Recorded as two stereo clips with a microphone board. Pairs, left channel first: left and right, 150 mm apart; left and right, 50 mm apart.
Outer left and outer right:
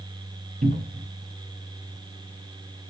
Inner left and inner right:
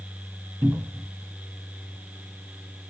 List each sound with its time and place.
0.6 s a cupboard door: 70° right (ahead or behind), 1.2 m